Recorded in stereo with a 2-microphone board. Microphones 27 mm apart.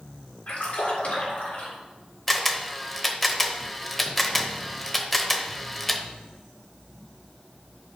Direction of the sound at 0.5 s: 60° left (ahead or behind).